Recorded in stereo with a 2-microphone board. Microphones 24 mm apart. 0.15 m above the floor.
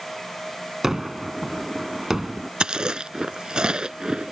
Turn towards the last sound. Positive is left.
turn(degrees=-35)  # may be behind; listen again after turning